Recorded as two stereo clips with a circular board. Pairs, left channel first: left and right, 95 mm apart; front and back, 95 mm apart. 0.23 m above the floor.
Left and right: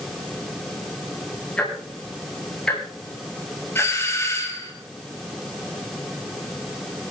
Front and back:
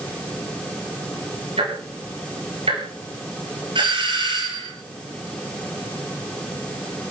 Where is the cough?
I don't hear a cough.